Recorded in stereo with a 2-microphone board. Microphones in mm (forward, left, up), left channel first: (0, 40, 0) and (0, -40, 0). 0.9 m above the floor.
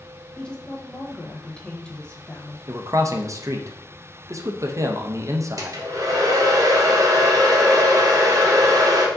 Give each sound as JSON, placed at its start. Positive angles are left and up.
{"t": 0.4, "sound": "a woman speaking", "side_deg": 10, "distance_m": 0.7}
{"t": 2.7, "sound": "a man speaking", "side_deg": -40, "distance_m": 0.5}
{"t": 5.6, "sound": "a hair dryer", "side_deg": -45, "distance_m": 0.9}